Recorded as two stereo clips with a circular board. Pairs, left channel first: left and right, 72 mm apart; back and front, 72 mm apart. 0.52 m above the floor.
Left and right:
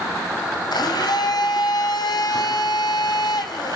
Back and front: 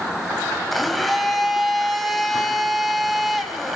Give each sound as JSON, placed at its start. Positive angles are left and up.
{"t": 0.7, "sound": "a blender", "azimuth_deg": 90, "distance_m": 3.5}